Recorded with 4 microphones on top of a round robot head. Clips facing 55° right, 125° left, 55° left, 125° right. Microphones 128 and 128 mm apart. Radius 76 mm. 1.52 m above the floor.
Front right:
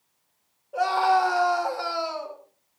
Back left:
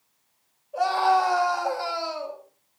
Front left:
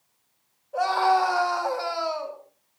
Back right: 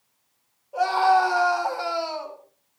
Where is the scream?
55° right, 7 m; by 2.4 s 65° right, 6 m.